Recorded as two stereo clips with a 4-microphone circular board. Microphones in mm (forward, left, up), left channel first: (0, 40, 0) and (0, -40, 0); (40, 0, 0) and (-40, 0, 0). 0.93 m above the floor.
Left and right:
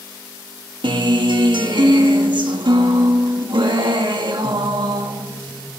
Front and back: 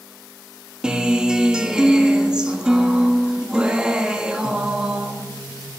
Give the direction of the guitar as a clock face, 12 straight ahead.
3 o'clock.